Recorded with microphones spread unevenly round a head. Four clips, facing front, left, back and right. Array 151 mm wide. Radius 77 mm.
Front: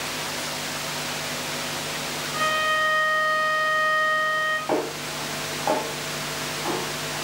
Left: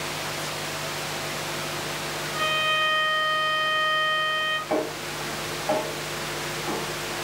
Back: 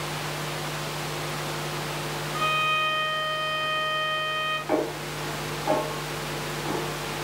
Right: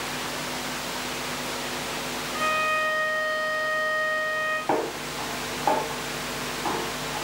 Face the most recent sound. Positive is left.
turn(degrees=-55)